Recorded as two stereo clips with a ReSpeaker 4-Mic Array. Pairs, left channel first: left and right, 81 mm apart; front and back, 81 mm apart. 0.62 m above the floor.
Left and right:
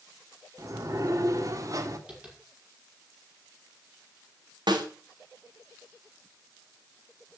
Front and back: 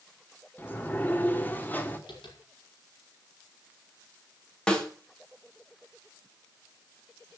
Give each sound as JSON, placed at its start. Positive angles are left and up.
{"t": 0.6, "sound": "a sliding door", "azimuth_deg": -60, "distance_m": 1.6}
{"t": 2.1, "sound": "tapping", "azimuth_deg": -10, "distance_m": 5.5}
{"t": 4.7, "sound": "a snare drum", "azimuth_deg": -80, "distance_m": 3.0}